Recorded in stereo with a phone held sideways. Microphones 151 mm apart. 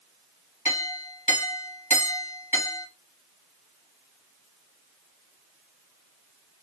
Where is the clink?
45° left (ahead or behind), 1.1 m.